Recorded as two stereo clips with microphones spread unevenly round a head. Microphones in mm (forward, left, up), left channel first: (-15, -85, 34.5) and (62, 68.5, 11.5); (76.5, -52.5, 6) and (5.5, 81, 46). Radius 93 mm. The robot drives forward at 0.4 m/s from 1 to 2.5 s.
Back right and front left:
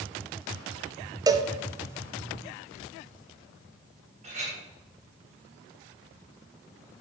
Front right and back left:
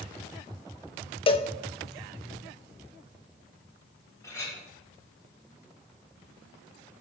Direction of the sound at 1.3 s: 5° right.